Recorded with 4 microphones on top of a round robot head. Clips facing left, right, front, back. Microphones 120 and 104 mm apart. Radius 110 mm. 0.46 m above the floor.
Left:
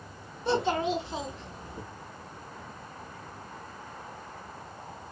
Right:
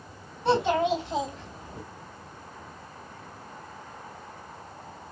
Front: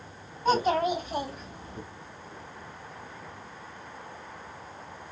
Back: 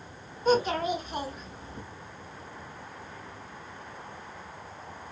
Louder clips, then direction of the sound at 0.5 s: Right 4 dB, front 1 dB; 55° right.